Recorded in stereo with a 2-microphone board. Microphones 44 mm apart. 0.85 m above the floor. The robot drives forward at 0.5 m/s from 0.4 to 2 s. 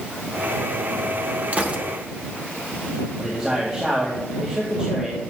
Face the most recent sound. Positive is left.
turn(degrees=-20)  # may be behind; listen again after turning